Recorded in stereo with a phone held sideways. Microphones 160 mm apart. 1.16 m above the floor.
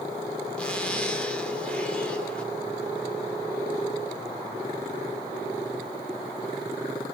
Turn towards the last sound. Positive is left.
turn(degrees=5)  # may be behind; listen again after turning